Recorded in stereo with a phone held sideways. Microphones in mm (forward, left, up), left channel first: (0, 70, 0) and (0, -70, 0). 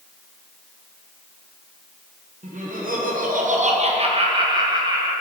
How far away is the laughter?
About 0.9 m.